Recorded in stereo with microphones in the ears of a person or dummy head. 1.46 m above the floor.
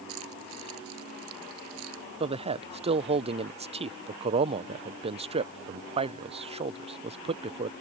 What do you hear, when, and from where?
0.1 s keys jangling: 90° right
2.2 s a man speaking: 30° right (ahead or behind)